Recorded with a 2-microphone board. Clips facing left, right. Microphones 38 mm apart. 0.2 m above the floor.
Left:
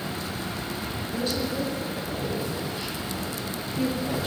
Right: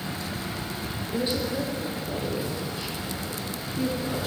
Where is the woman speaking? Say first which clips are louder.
Right 2 dB; 30° right (ahead or behind), 3.5 m; by 4.3 s 10° left (ahead or behind), 5.5 m.